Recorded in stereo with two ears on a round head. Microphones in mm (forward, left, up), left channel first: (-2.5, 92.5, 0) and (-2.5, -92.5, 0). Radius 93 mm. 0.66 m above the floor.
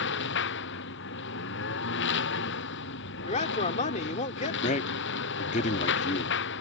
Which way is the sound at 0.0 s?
60° left (ahead or behind).